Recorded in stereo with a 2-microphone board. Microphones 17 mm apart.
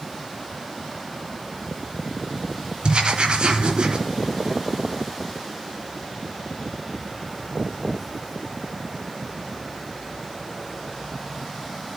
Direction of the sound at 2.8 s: 85° right.